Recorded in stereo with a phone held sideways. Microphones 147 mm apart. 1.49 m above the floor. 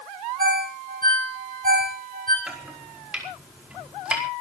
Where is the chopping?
5° right (ahead or behind), 4.5 m.